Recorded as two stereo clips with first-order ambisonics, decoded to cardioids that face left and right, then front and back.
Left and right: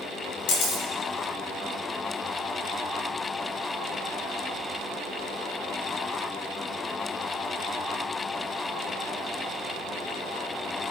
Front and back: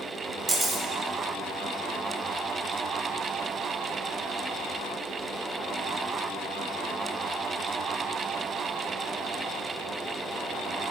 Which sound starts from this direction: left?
A camera shutter, at 0.5 s.